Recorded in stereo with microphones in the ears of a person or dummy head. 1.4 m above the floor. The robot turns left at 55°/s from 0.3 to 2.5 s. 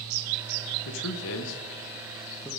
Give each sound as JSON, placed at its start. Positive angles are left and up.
{"t": 0.8, "sound": "a man speaking", "side_deg": 80, "distance_m": 1.1}